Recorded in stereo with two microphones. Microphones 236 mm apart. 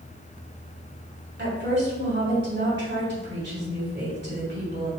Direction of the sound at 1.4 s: 50° right (ahead or behind).